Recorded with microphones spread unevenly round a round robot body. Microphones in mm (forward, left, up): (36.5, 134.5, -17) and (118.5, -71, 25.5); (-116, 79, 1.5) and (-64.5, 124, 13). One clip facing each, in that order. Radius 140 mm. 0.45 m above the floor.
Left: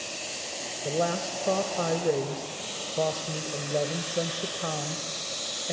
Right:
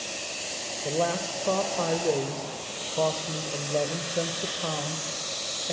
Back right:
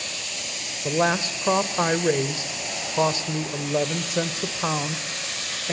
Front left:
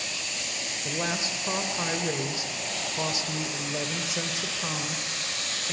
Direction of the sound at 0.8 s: 170° right.